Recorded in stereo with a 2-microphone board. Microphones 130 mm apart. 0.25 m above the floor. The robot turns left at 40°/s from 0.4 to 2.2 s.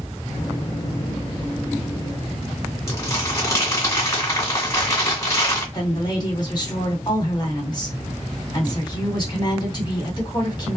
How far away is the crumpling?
About 1.9 m.